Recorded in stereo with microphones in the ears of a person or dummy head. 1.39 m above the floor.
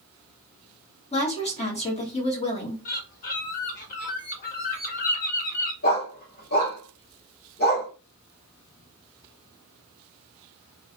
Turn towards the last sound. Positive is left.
turn(degrees=50)  # may be behind; listen again after turning